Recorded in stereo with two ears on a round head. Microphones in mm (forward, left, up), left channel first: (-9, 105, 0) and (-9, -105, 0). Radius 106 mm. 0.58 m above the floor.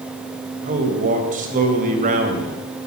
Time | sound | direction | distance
0.6 | a man speaking | 35° right (ahead or behind) | 3 m